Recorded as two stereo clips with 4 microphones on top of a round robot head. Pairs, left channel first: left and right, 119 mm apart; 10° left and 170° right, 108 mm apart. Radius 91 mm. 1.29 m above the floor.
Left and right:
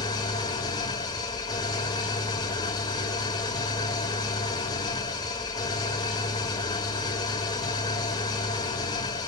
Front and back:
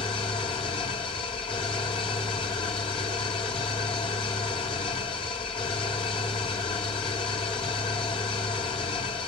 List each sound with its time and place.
0.0 s an engine running: 40° left, 1.6 m